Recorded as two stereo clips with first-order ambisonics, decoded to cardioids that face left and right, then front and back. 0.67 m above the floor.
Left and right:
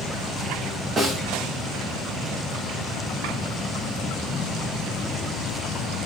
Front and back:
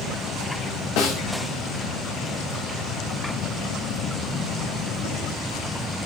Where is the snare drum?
15° right, 2.5 m.